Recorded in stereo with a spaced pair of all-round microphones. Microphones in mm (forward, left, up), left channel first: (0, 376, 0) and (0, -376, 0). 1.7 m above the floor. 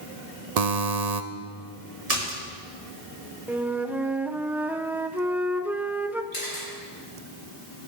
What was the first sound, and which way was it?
A buzzer, 60° right (ahead or behind).